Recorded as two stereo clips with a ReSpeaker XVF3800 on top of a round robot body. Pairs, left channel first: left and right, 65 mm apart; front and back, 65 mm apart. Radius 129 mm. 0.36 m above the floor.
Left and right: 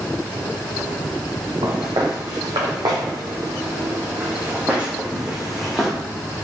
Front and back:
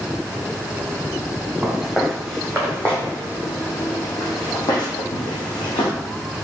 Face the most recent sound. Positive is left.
turn(degrees=5)